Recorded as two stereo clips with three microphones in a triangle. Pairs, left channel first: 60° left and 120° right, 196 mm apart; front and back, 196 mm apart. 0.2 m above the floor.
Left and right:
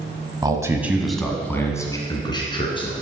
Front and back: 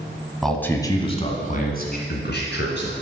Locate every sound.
0.4 s a man speaking: 90° right, 1.2 m; by 2.9 s straight ahead, 2.5 m